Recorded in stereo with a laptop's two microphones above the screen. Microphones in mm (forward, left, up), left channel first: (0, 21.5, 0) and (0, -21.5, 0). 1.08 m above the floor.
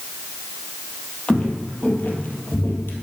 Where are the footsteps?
25° left (ahead or behind), 1.7 m; by 3.0 s 60° left (ahead or behind), 1.9 m.